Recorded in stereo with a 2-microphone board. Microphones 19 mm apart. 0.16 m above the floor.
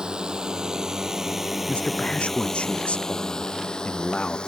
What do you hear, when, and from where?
0.0 s a drone: 45° right (ahead or behind); by 4.5 s 55° left (ahead or behind)
1.7 s a man speaking: 80° left